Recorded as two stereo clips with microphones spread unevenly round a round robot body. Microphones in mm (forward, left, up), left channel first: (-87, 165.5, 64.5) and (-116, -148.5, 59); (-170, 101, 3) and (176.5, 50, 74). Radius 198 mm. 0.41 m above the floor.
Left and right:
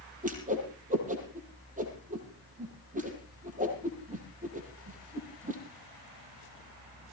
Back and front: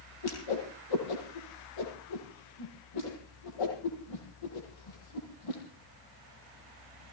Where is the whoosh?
160° right, 6.5 m.